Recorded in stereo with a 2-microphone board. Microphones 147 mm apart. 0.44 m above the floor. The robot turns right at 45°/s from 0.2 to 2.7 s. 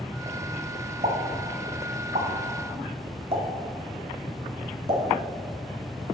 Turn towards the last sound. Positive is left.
turn(degrees=-40)  # may be behind; listen again after turning